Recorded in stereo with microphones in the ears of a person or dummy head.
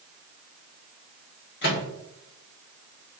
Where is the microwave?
55° left (ahead or behind), 1.2 m.